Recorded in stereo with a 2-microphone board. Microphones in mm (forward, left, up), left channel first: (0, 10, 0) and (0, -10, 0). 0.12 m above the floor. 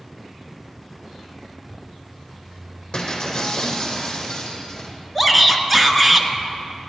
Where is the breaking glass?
45° left (ahead or behind), 3 m.